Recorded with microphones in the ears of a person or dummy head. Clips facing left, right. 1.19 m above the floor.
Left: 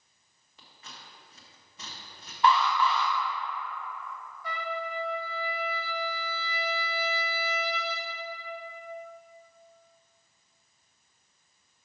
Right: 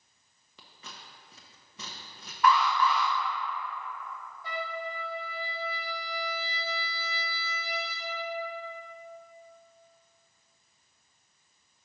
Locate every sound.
0.6 s scissors: 65° right (ahead or behind), 1.0 m
2.4 s an alarm: 30° left (ahead or behind), 1.0 m
4.4 s a trumpet: 30° right (ahead or behind), 1.0 m